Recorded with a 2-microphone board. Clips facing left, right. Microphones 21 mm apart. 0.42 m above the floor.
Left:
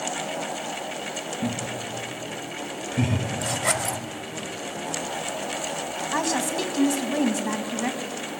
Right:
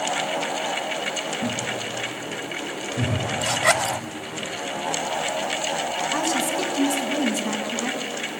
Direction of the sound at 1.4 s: 30° left (ahead or behind).